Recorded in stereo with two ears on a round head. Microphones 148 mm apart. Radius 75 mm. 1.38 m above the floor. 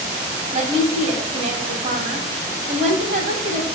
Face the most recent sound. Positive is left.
turn(degrees=-45)  # may be behind; listen again after turning